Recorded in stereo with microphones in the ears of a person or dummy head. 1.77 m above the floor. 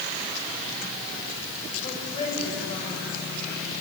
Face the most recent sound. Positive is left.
turn(degrees=30)  # may be behind; listen again after turning